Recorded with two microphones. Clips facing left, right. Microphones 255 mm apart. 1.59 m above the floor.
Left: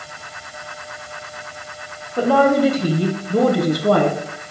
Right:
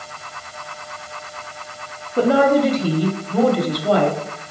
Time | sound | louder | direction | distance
2.2 | a woman speaking | even | 20° right (ahead or behind) | 0.7 m